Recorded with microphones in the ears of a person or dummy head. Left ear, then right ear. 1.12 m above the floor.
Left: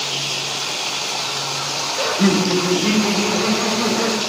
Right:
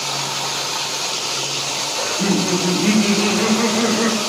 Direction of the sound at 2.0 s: 50° left (ahead or behind).